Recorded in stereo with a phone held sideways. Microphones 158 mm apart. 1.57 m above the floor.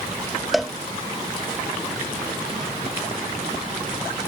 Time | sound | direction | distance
0.5 | a cowbell | centre (ahead or behind) | ?